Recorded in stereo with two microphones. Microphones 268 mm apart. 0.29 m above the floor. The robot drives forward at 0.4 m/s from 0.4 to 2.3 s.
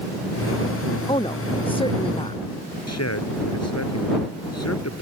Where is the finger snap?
No finger snap in this recording.